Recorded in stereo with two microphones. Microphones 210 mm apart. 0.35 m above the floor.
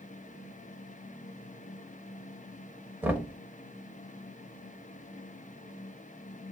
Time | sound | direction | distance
3.0 | knocking | 10° right (ahead or behind) | 0.8 m